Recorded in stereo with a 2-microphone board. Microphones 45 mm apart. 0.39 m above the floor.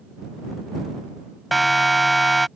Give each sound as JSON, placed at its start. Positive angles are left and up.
{"t": 1.5, "sound": "a siren", "side_deg": 0}